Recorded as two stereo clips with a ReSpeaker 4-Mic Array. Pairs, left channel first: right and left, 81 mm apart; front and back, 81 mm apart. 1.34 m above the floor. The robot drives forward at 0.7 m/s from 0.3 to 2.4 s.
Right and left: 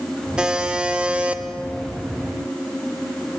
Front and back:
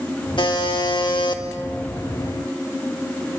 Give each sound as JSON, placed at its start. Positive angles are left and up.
{"t": 0.4, "sound": "a buzzer", "azimuth_deg": 10, "distance_m": 2.0}